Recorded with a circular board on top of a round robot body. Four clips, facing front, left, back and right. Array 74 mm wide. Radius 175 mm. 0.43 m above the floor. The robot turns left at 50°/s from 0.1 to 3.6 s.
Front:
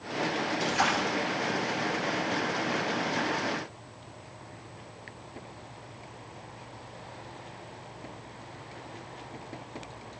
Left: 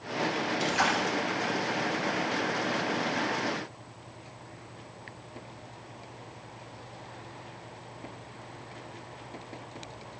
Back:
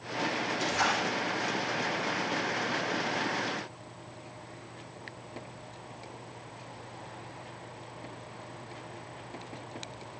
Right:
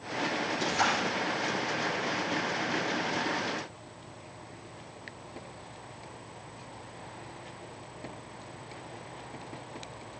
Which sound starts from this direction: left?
A splash, at 0.6 s.